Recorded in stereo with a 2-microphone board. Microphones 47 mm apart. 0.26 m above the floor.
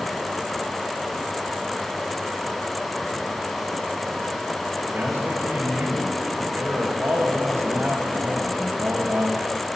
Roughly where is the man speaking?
Right.